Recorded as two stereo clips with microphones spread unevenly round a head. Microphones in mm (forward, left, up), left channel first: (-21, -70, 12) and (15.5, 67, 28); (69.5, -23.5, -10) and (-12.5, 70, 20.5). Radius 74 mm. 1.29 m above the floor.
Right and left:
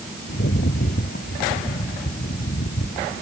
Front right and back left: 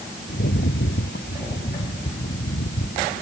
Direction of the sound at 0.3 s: 70° right.